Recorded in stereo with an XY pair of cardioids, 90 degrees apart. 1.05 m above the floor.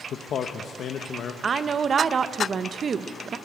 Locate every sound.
0.1 s a man speaking: 70° left, 0.8 m
1.4 s a woman speaking: 50° right, 0.7 m